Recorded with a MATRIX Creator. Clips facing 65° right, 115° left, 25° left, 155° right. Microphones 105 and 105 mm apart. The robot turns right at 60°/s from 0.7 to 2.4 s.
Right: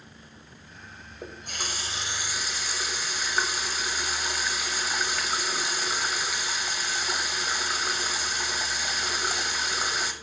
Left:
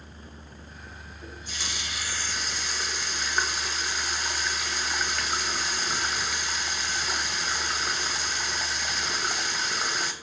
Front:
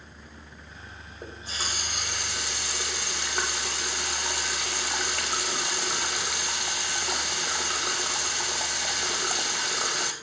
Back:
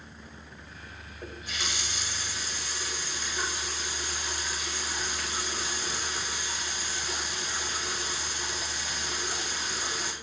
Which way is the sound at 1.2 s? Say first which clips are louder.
Right 3 dB, front 1 dB; 50° right.